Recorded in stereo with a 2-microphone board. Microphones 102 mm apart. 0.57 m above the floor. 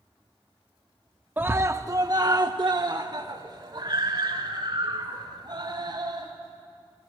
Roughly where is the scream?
Centre.